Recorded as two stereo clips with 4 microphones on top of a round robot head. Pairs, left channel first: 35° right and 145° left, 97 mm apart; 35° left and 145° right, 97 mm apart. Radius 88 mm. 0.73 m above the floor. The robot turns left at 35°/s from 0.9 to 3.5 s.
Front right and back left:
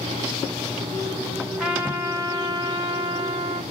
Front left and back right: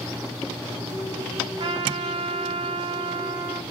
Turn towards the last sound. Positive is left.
turn(degrees=160)